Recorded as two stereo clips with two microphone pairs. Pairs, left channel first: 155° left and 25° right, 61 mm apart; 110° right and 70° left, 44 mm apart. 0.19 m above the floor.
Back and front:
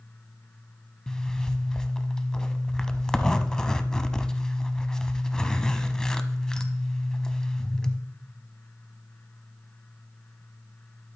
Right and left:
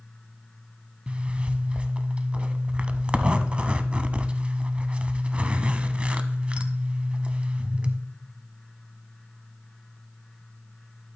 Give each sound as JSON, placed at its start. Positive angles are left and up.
{"t": 1.1, "sound": "a zipper", "azimuth_deg": 85, "distance_m": 0.6}